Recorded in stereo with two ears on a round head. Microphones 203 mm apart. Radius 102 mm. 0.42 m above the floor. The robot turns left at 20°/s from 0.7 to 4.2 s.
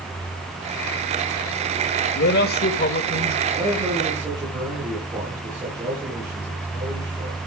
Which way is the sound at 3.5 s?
30° right (ahead or behind).